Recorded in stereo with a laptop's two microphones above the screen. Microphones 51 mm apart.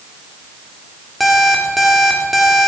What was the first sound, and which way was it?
An alarm clock, centre (ahead or behind).